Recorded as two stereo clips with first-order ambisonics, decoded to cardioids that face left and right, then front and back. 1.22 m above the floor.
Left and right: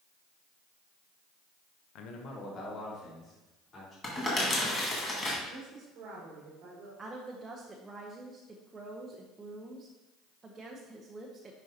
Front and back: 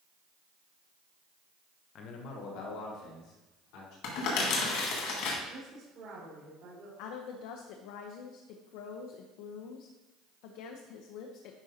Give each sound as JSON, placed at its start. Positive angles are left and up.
{"t": 1.9, "sound": "a man speaking", "azimuth_deg": 55, "distance_m": 0.7}
{"t": 4.0, "sound": "crumpling", "azimuth_deg": 25, "distance_m": 2.0}
{"t": 5.5, "sound": "a woman speaking", "azimuth_deg": -130, "distance_m": 2.5}
{"t": 7.0, "sound": "a woman speaking", "azimuth_deg": -15, "distance_m": 0.7}